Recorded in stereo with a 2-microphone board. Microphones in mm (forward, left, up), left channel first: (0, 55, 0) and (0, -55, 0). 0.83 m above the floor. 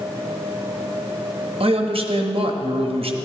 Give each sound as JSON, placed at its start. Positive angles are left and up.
{"t": 1.6, "sound": "a man speaking", "side_deg": -60, "distance_m": 0.9}